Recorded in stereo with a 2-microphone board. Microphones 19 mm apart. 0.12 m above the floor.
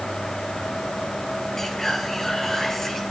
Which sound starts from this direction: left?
Whispering, at 1.6 s.